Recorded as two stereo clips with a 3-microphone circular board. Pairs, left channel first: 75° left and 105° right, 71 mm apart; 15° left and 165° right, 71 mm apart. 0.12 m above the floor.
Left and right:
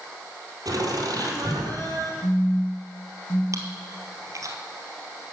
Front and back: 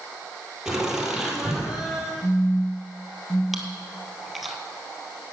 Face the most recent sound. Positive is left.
turn(degrees=-75)